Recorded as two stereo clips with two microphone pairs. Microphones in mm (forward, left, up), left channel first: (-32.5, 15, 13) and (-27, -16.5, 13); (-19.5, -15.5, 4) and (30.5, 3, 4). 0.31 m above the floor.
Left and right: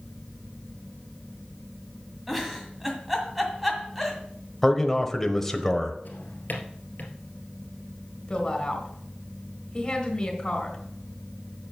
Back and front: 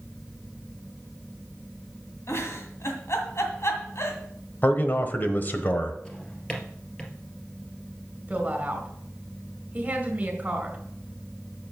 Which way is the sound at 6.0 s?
125° left.